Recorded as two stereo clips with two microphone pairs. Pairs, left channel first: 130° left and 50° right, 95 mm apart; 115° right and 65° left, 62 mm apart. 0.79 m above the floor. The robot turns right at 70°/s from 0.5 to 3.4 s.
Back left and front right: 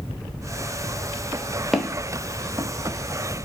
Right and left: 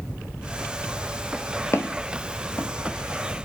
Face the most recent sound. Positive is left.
turn(degrees=-20)